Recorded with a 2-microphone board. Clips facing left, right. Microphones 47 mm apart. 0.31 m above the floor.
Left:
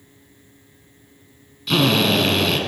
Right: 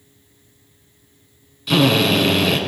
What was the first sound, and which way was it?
A drill, 5° right (ahead or behind).